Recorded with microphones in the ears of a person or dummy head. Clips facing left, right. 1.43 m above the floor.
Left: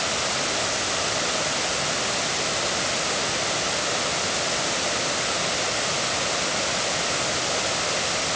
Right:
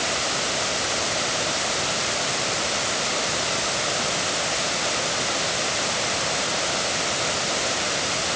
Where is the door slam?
No door slam in this recording.